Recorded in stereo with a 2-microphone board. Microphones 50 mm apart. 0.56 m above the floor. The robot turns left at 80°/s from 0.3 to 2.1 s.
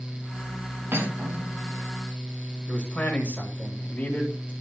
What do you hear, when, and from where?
0.9 s cutlery clinking: 130° right, 3.5 m; by 1.8 s 160° left, 3.5 m
2.7 s a man speaking: 30° left (ahead or behind), 4 m